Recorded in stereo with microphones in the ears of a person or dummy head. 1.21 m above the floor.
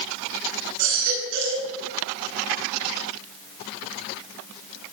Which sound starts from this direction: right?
A baby crying, at 0.8 s.